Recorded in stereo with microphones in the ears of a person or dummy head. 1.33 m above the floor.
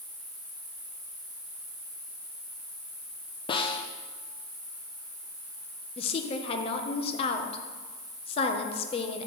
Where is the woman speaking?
30° left (ahead or behind), 0.9 m.